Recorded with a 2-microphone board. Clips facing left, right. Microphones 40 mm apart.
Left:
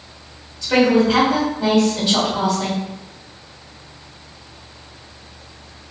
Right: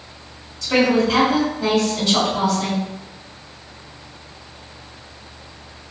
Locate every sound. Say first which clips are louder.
0.6 s a woman speaking: left 2 dB; 10° left (ahead or behind), 1.6 m